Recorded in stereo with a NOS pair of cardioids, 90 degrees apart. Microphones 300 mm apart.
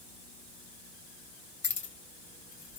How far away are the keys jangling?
About 1.5 m.